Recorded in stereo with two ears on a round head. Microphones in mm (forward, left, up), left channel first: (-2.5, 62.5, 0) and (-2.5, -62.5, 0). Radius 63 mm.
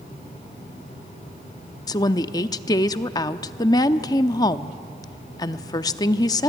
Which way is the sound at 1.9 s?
30° left (ahead or behind).